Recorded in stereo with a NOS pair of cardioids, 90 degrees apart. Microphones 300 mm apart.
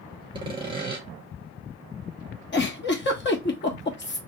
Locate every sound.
0.3 s sawing: 15° right, 1.8 m
2.5 s a giggle: 40° left, 1.3 m